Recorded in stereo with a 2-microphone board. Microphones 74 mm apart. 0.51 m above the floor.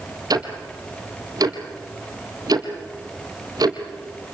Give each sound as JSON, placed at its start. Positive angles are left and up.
{"t": 0.3, "sound": "ticking", "side_deg": -60, "distance_m": 2.5}